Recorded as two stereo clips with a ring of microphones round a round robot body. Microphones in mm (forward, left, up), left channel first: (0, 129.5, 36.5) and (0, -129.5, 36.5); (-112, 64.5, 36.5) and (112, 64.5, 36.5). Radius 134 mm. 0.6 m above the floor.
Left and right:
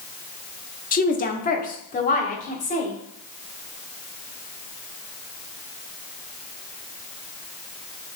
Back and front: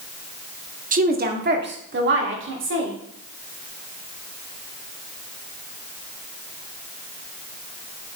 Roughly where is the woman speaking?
Ahead left.